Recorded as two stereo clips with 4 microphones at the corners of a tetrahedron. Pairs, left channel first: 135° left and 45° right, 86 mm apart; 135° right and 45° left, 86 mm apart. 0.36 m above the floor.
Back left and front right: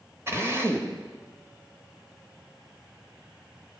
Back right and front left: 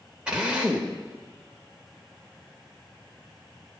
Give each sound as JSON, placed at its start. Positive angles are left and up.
{"t": 0.3, "sound": "a drill", "azimuth_deg": -25, "distance_m": 1.5}